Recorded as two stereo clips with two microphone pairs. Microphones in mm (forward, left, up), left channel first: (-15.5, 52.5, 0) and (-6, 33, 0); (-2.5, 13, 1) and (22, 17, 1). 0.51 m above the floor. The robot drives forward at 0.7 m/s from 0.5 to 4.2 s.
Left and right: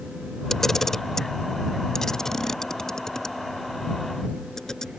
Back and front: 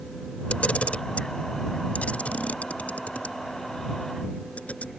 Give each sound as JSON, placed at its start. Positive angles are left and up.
{"t": 0.5, "sound": "a camera shutter", "azimuth_deg": -175}